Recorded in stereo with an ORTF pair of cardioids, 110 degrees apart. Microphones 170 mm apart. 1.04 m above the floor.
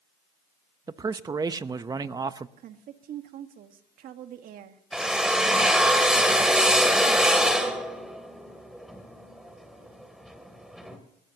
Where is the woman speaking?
65° right, 1.6 m.